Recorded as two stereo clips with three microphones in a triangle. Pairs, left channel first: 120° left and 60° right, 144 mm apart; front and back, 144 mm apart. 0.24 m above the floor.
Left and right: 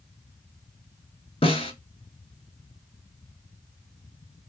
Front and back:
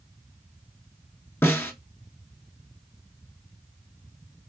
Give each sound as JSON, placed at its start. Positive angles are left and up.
{"t": 1.4, "sound": "a snare drum", "azimuth_deg": 75, "distance_m": 0.5}